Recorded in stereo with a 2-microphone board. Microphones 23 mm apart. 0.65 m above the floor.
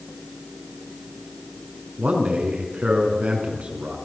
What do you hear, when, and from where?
2.0 s a man speaking: 65° right (ahead or behind), 6 m